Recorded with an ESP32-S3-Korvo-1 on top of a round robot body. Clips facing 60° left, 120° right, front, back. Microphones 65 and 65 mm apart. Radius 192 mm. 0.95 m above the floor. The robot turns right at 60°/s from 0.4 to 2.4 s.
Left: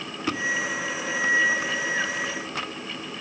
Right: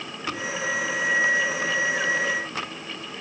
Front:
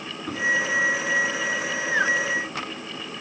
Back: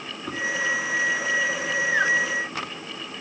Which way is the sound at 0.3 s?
95° left.